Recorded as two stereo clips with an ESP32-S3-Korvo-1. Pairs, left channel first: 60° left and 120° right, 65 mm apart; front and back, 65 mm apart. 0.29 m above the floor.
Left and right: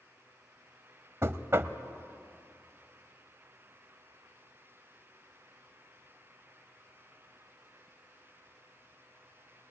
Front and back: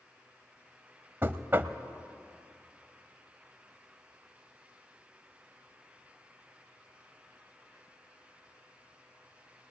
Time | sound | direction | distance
1.2 | knocking | 140° right | 0.9 m